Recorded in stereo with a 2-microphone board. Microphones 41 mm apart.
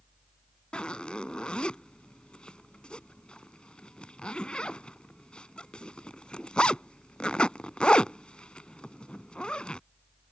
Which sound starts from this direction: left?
A zipper, at 0.7 s.